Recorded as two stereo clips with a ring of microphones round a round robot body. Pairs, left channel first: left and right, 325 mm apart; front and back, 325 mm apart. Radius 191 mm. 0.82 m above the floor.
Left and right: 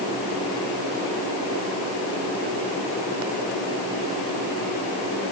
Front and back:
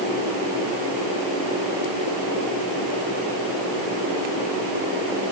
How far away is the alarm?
No alarm in this recording.